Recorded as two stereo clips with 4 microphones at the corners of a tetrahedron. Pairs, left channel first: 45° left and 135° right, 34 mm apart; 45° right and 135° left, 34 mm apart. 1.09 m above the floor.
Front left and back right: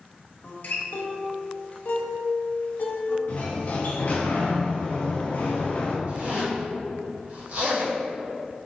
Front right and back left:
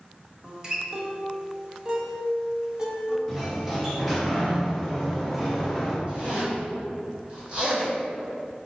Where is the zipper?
170° right, 1.8 m.